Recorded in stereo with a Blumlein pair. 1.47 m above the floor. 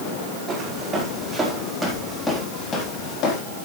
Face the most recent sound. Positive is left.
turn(degrees=40)